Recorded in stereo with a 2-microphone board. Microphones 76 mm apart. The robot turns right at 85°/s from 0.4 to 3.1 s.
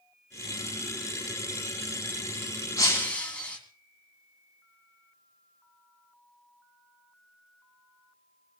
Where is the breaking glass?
45° left (ahead or behind), 3 m; by 3.6 s 20° left (ahead or behind), 3 m.